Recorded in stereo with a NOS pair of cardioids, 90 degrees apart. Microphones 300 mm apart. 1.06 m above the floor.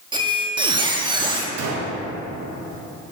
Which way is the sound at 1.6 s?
60° right.